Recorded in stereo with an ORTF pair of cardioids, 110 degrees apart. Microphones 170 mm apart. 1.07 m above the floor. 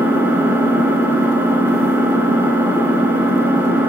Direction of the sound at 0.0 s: 10° right.